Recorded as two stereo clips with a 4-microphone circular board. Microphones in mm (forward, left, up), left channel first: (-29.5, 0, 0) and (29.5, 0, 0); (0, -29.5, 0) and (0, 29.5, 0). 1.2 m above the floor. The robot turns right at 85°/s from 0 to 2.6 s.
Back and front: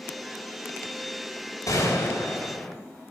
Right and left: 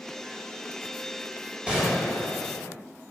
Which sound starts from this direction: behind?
A gunshot, at 1.7 s.